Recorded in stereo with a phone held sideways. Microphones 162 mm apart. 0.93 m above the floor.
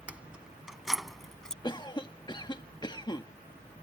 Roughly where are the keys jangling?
Centre.